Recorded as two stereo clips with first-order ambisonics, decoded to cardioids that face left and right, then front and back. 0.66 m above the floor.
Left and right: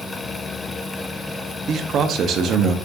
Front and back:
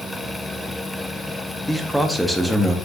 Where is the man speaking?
95° right, 0.7 m.